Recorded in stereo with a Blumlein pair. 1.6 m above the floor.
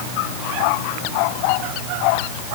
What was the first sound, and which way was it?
Only background noise.